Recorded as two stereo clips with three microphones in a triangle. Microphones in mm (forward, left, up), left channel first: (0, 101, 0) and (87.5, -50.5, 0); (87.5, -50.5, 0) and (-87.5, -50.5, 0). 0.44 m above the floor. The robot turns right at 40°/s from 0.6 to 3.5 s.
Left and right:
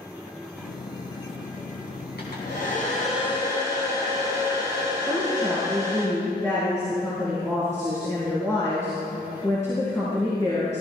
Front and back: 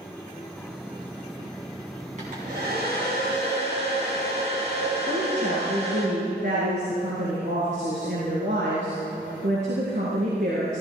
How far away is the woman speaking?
About 6 m.